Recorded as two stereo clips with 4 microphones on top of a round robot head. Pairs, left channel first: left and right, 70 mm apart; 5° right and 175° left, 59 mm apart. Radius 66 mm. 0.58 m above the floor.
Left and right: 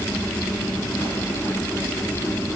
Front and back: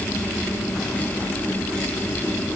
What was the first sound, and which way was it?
Only background noise.